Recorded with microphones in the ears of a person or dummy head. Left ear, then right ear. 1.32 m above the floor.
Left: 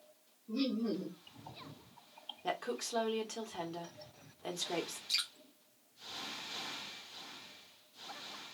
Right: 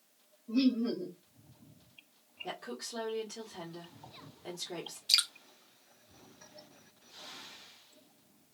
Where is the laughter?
35° right (ahead or behind), 0.7 m.